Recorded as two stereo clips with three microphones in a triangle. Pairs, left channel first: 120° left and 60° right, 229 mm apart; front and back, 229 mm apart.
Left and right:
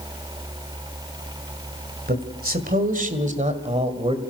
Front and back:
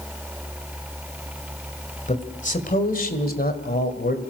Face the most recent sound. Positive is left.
turn(degrees=-5)